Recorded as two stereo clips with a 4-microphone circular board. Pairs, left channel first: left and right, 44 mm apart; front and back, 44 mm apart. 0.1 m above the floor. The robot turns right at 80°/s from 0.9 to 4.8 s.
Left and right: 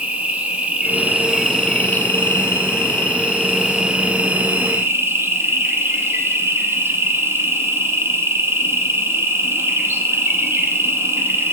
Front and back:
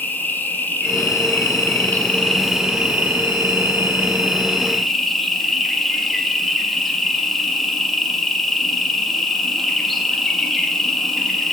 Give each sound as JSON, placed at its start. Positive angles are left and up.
{"t": 0.0, "sound": "an insect", "azimuth_deg": -40, "distance_m": 0.9}